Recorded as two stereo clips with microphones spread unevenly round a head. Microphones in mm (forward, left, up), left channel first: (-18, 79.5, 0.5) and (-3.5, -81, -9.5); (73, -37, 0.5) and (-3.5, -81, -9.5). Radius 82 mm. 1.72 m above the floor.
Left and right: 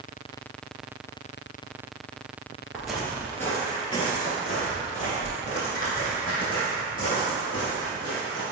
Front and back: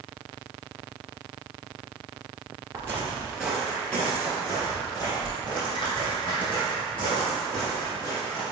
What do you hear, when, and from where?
2.7 s footsteps: 170° right, 1.8 m; by 8.4 s 55° left, 6 m